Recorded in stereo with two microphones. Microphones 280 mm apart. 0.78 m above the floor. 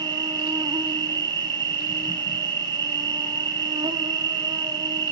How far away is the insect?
About 0.9 m.